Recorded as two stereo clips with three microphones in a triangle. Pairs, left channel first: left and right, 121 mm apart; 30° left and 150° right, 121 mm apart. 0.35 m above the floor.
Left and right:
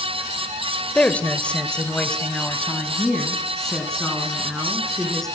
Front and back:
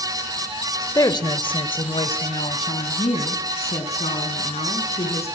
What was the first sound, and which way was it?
A woman speaking, 25° left.